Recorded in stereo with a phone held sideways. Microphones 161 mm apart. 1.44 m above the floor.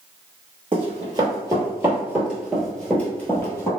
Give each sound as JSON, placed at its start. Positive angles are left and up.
{"t": 0.7, "sound": "running footsteps", "side_deg": -30, "distance_m": 1.7}